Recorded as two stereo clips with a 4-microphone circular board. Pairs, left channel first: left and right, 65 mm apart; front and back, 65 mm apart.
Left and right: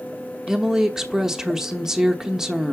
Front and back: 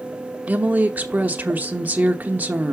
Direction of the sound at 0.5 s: 160° right.